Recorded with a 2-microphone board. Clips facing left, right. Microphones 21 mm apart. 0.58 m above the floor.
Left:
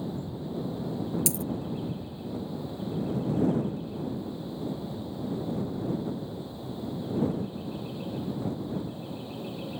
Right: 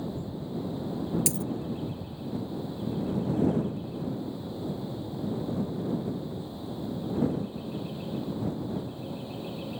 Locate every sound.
1.3 s a dropped coin: 10° right (ahead or behind)